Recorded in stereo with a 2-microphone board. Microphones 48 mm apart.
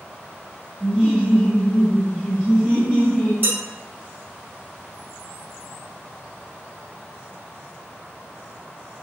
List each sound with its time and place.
0.8 s laughter: 5° right (ahead or behind), 1.7 m; by 3.3 s 35° right (ahead or behind), 2 m
3.4 s dishes clattering: 50° right (ahead or behind), 1.8 m